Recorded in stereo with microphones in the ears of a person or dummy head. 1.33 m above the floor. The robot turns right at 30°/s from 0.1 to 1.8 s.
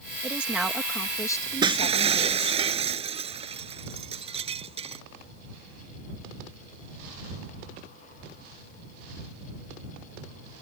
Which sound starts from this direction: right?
Breaking glass, at 1.6 s.